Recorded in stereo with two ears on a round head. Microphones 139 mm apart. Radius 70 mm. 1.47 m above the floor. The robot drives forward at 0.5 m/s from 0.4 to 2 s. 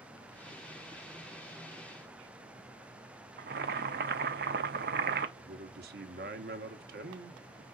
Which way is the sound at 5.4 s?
70° right (ahead or behind).